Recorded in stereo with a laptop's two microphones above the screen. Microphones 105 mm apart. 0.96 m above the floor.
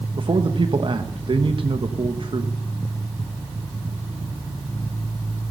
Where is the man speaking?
55° right (ahead or behind), 1.0 m.